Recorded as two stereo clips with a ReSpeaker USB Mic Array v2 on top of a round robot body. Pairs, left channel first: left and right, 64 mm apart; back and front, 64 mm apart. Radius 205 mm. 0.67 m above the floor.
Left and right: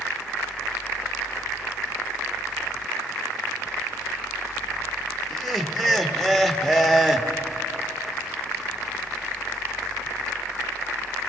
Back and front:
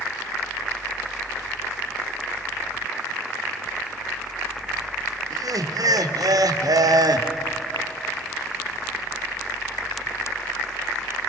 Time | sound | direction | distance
5.3 | laughter | 5° left | 1.7 m